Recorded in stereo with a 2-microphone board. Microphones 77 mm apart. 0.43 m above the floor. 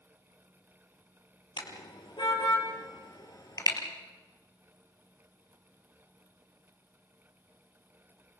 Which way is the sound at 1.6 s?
70° left (ahead or behind).